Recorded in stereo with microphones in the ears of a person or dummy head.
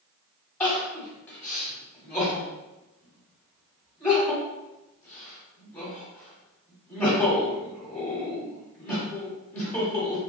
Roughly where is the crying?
Centre.